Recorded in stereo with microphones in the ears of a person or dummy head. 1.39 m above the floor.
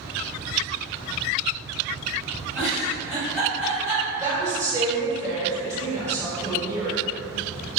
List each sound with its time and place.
2.5 s a giggle: 10° right (ahead or behind), 1.3 m
4.2 s a woman speaking: 15° right (ahead or behind), 0.9 m